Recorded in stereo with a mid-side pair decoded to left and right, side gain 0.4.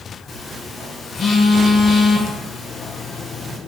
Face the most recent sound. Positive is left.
turn(degrees=55)